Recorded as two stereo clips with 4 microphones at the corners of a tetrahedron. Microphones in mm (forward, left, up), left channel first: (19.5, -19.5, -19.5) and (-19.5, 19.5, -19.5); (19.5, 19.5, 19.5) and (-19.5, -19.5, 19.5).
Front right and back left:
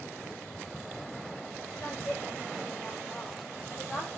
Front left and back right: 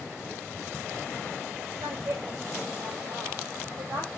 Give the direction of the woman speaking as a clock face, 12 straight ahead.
4 o'clock.